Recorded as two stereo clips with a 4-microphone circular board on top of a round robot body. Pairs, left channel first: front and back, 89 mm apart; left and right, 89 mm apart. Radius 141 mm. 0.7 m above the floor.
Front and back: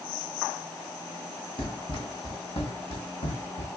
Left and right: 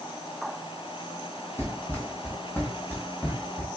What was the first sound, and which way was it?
Running footsteps, 20° left.